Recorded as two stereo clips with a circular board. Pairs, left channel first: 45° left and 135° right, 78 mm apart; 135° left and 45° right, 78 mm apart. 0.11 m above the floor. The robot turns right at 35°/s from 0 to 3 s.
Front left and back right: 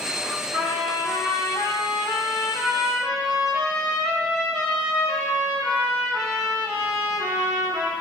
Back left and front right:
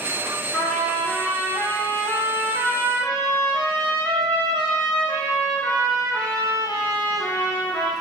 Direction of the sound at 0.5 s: 55° left.